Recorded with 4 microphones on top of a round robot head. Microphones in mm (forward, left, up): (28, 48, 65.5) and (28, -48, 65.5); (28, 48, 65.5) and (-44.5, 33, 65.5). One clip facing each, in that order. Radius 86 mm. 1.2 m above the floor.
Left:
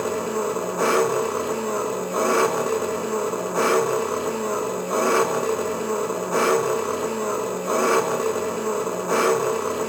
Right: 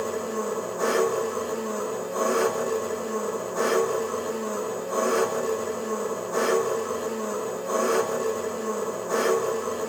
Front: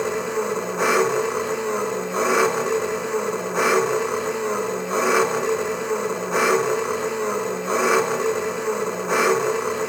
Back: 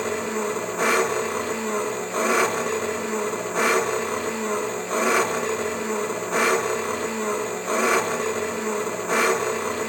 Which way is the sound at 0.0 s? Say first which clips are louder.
Left 4 dB, front 2 dB; 90° left.